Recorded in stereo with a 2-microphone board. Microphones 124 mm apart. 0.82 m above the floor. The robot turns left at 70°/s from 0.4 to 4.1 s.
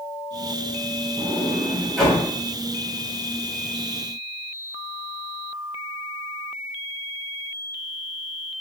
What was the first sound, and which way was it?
A sliding door, 50° right (ahead or behind).